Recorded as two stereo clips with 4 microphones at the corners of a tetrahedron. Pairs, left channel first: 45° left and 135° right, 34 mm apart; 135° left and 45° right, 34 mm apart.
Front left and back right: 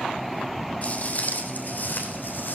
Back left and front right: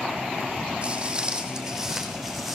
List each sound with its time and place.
0.8 s footsteps: 10° left, 2.5 m; by 2.5 s 45° left, 4.5 m